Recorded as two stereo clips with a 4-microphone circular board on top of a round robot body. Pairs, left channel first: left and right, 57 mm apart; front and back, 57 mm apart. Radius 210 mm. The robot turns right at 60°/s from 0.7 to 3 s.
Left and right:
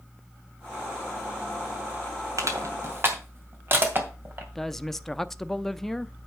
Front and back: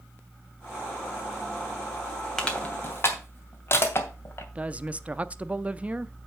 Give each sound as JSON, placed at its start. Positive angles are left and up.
{"t": 2.4, "sound": "crushing", "azimuth_deg": -80, "distance_m": 2.5}
{"t": 4.5, "sound": "a woman speaking", "azimuth_deg": 165, "distance_m": 0.8}